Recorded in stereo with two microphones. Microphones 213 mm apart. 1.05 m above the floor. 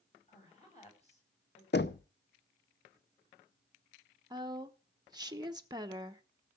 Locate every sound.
0.3 s a woman speaking: 30° left (ahead or behind), 6.5 m
1.7 s knocking: 55° left (ahead or behind), 0.7 m
4.3 s a woman speaking: 20° right (ahead or behind), 1.0 m